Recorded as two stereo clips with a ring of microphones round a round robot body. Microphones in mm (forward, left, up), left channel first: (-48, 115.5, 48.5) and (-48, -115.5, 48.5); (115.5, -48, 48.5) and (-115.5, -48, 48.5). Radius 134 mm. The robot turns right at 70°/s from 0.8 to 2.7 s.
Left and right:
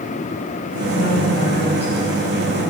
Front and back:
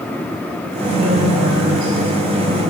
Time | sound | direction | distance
0.9 | a woman speaking | 110° left | 4.5 m